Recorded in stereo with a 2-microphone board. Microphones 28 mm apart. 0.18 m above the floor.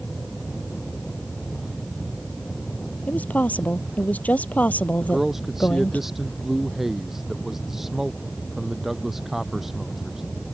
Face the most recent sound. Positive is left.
turn(degrees=-10)  # may be behind; listen again after turning